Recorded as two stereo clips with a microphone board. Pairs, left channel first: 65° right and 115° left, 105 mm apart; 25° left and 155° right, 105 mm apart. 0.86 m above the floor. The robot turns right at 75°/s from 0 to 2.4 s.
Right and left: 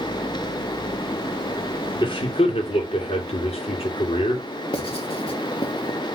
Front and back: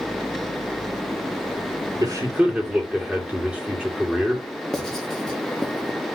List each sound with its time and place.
2.0 s a man speaking: 110° right, 2.5 m; by 4.4 s 80° right, 2.5 m
4.7 s writing: 65° right, 1.6 m